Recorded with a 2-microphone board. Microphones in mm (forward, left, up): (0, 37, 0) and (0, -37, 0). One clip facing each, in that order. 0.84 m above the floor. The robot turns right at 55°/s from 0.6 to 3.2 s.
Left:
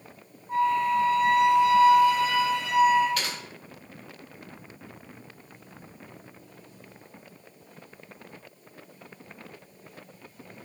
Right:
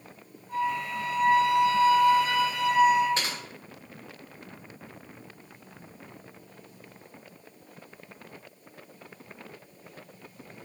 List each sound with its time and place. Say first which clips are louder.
0.5 s a flute: left 6 dB; 150° left, 1.2 m; by 3.1 s 75° right, 1.2 m
3.2 s typing on a keyboard: even; 30° right (ahead or behind), 0.6 m